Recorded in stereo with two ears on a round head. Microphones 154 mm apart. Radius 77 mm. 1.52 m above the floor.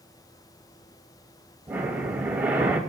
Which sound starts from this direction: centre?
Breathing, at 1.7 s.